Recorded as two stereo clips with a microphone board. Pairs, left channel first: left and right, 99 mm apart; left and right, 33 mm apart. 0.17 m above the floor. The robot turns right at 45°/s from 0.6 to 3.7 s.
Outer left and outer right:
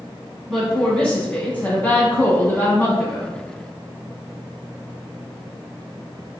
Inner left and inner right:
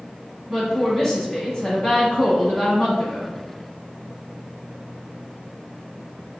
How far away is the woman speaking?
About 1.0 m.